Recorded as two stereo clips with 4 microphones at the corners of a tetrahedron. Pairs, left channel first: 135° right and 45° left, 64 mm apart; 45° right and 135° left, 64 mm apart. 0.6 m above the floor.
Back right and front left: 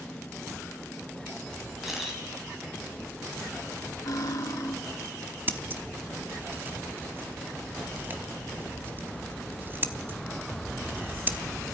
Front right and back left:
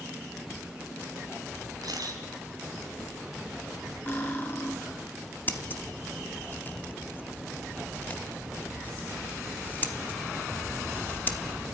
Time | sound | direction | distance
1.8 | a camera shutter | 130° left | 4 m
4.1 | cutlery clinking | 105° right | 2.5 m
5.5 | scissors | straight ahead | 1.1 m